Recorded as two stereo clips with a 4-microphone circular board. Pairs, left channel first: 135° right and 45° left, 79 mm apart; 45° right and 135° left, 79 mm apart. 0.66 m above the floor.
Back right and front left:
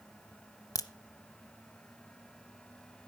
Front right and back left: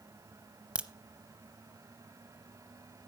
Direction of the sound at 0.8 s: 155° right.